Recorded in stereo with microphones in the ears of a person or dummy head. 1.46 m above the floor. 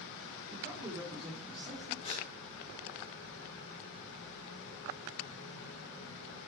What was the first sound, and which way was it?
A man speaking, 30° right (ahead or behind).